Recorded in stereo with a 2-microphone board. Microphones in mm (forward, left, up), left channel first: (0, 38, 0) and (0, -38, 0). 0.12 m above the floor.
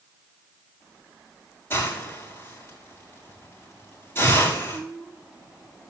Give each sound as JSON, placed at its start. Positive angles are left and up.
{"t": 1.7, "sound": "a hiss", "side_deg": 30, "distance_m": 7.5}